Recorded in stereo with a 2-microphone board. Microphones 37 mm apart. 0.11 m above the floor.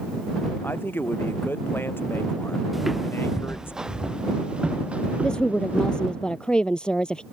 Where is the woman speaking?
25° left (ahead or behind).